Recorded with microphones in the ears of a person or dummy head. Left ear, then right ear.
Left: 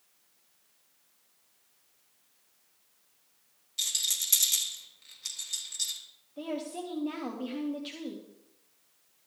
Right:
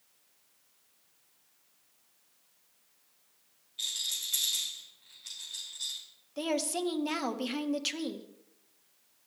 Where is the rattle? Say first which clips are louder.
Left 3 dB; 90° left, 3 m.